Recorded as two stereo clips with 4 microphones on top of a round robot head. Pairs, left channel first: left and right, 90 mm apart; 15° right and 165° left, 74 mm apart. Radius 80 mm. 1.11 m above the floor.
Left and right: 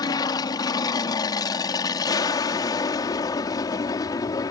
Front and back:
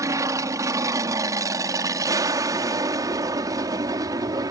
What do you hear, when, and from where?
0.0 s an aircraft: 130° left; by 4.5 s 135° left